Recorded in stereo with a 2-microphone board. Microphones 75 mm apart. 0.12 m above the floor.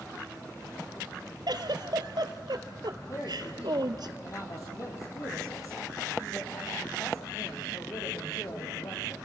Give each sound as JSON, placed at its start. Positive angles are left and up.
{"t": 1.5, "sound": "a giggle", "side_deg": -70, "distance_m": 1.0}
{"t": 3.1, "sound": "a woman speaking", "side_deg": 45, "distance_m": 4.5}